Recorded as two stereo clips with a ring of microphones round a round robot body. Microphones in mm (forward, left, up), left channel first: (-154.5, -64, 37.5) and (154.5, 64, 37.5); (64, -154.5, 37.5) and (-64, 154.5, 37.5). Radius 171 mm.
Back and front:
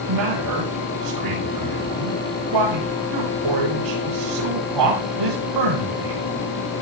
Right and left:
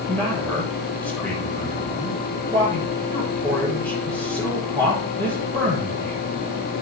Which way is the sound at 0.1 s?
20° left.